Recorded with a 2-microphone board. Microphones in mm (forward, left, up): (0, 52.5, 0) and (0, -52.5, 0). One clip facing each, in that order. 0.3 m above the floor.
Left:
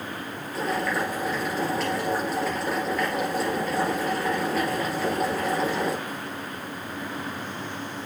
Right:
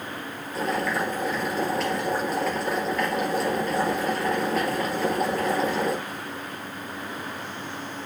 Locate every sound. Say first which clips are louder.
0.5 s boiling: right 1 dB; centre (ahead or behind), 3.5 m